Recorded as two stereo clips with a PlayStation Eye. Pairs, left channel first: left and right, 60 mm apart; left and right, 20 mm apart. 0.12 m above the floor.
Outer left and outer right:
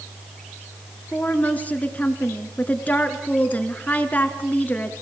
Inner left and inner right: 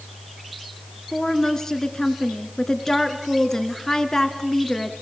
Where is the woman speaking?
25° left (ahead or behind), 1.9 m.